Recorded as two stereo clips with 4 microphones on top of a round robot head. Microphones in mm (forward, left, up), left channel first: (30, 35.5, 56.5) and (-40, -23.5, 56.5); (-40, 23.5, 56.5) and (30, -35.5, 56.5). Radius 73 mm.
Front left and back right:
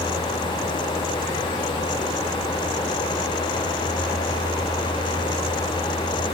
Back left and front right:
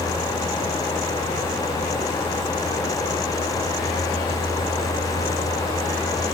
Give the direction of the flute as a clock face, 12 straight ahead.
No flute in this recording.